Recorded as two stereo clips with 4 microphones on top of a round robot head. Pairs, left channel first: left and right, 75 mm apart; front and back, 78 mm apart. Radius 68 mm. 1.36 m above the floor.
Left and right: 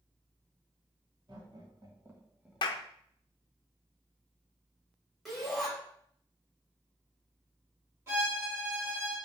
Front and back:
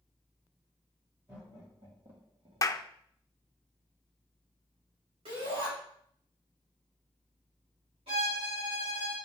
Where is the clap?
50° left, 0.5 m.